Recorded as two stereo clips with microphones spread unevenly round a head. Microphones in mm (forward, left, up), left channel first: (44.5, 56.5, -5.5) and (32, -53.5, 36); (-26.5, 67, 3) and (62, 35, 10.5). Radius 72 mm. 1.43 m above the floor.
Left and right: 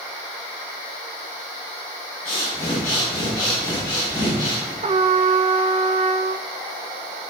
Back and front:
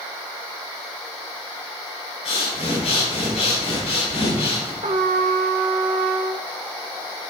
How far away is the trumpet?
About 0.7 m.